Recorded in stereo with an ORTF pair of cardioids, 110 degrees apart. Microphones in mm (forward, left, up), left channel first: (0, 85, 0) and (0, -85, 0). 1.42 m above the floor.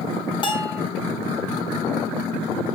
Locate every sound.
0.4 s a bell: 30° left, 4 m